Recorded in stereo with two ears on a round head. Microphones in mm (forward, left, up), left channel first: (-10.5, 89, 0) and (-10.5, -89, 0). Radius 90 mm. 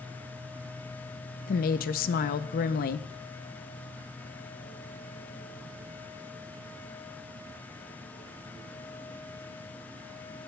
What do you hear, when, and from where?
1.5 s a woman speaking: 45° left (ahead or behind), 0.6 m